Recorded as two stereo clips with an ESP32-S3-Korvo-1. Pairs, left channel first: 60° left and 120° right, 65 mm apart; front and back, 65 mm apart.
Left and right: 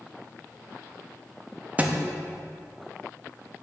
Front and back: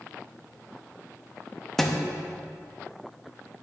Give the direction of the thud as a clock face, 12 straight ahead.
3 o'clock.